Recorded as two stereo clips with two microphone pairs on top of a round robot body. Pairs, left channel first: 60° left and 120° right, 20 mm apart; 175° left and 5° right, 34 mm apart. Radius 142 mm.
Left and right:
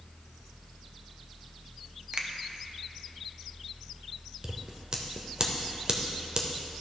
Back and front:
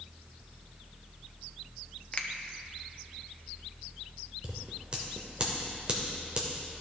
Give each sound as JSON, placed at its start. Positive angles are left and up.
{"t": 2.1, "sound": "a finger snap", "azimuth_deg": -160, "distance_m": 0.9}
{"t": 4.4, "sound": "scissors", "azimuth_deg": -65, "distance_m": 0.6}